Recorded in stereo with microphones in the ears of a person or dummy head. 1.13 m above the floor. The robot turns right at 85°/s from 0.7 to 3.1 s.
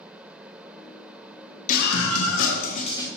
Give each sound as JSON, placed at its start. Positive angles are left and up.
{"t": 1.7, "sound": "a scream", "azimuth_deg": 45, "distance_m": 1.3}